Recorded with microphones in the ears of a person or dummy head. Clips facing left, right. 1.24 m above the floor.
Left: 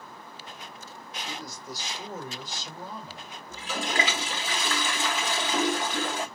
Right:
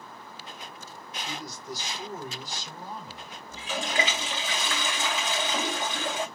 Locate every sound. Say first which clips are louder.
1.2 s a man speaking: right 2 dB; 80° left, 1.8 m; by 3.4 s 65° left (ahead or behind), 3 m
3.5 s a toilet flushing: even; 40° left (ahead or behind), 1.0 m